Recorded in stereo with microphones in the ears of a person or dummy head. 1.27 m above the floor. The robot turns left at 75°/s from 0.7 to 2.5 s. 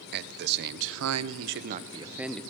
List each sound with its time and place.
0.1 s a man speaking: 60° right, 0.5 m; by 2.4 s 175° left, 0.5 m